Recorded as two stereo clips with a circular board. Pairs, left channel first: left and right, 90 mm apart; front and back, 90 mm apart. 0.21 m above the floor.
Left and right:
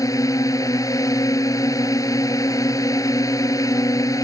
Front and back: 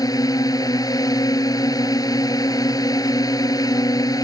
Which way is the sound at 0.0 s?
45° left.